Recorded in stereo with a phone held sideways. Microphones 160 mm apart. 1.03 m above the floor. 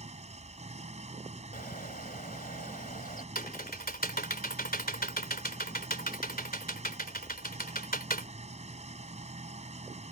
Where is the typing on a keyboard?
80° left.